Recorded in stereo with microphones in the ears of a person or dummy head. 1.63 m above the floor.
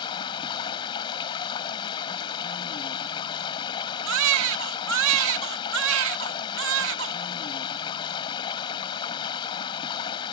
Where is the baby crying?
70° right (ahead or behind).